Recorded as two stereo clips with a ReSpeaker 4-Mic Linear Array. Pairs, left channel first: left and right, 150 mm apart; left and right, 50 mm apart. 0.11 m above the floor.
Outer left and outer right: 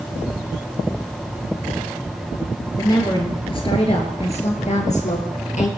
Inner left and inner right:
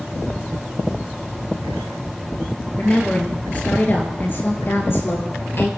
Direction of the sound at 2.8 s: 25° left (ahead or behind).